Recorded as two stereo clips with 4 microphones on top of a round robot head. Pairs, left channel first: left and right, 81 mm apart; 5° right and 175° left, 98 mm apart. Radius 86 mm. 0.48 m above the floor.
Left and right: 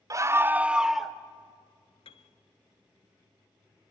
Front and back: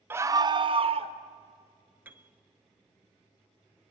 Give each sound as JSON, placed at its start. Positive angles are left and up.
{"t": 0.1, "sound": "a scream", "azimuth_deg": -120, "distance_m": 1.0}
{"t": 2.0, "sound": "a piano", "azimuth_deg": 105, "distance_m": 1.2}